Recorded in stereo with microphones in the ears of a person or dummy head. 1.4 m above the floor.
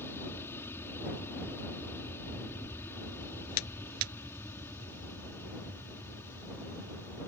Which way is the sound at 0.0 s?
15° left (ahead or behind).